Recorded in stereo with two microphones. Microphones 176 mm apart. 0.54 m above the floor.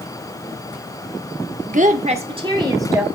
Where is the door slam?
I don't hear a door slam.